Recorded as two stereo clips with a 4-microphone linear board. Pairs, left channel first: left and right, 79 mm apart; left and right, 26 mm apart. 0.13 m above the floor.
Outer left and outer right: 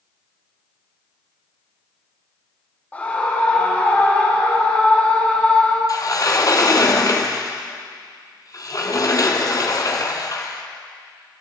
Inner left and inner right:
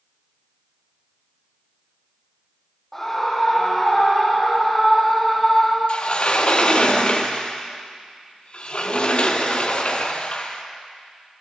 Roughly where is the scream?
Centre.